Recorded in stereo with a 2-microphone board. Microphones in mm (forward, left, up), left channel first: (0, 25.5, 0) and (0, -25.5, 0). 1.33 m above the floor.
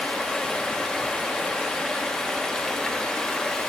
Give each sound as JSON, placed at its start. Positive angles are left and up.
{"t": 0.0, "sound": "running water", "side_deg": 15, "distance_m": 0.8}